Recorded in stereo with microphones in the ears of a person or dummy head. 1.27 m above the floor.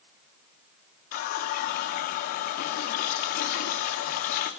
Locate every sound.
1.1 s a running tap: 50° left (ahead or behind), 0.6 m